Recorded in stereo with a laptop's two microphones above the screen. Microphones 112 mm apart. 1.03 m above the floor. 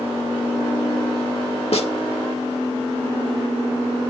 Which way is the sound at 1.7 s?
65° left (ahead or behind).